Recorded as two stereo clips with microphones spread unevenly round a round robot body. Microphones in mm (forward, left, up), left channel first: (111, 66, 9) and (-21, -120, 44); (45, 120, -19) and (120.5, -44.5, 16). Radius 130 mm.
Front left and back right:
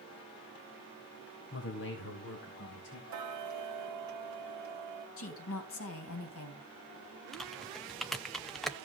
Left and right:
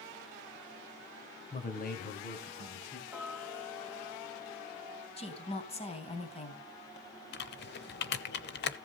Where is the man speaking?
80° left, 1.5 m; by 3.0 s 95° left, 3.5 m.